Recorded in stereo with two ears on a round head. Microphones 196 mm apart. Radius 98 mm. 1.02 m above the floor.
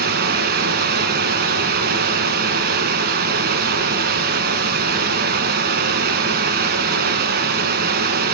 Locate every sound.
0.0 s running water: 45° right (ahead or behind), 1.6 m